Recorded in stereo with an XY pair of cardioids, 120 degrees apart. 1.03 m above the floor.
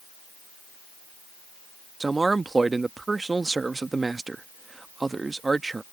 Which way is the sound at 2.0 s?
20° right.